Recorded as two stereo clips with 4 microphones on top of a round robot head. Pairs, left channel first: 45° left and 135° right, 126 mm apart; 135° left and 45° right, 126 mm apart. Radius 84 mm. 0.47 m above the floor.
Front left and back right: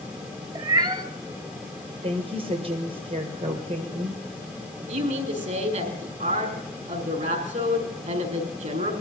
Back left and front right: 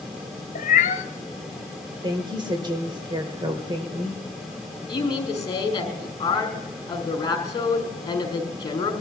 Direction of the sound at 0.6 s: 165° left.